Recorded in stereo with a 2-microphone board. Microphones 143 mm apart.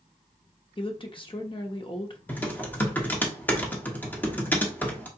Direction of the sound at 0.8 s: 35° left (ahead or behind).